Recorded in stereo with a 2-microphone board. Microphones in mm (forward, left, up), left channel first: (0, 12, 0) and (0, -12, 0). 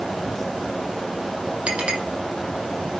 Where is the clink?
50° right (ahead or behind), 3 m.